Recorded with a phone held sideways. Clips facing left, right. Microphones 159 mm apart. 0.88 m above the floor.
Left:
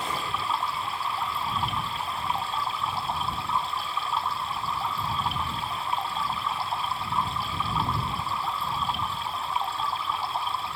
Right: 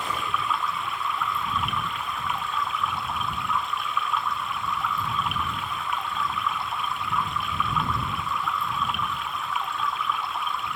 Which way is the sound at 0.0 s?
30° left (ahead or behind).